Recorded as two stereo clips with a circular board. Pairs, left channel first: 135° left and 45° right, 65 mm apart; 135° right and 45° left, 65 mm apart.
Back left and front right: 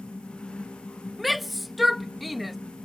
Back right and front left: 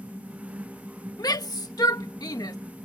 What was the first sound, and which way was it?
A shout, 135° right.